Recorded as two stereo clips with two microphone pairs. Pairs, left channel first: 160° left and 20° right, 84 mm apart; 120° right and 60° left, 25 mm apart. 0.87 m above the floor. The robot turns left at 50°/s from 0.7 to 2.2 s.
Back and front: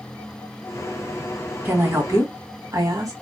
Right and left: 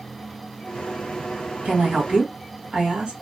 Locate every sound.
1.6 s a woman speaking: 45° left, 1.3 m; by 3.1 s 20° left, 1.3 m